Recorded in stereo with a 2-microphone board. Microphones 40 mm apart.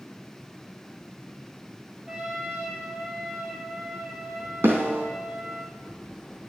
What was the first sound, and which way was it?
A trumpet, 15° right (ahead or behind).